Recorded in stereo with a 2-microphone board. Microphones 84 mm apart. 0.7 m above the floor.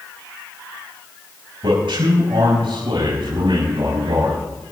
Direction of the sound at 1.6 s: 65° right (ahead or behind).